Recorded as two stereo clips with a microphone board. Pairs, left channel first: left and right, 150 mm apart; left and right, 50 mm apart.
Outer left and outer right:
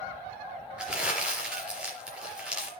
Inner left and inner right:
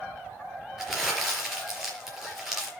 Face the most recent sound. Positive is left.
turn(degrees=-5)  # may be behind; listen again after turning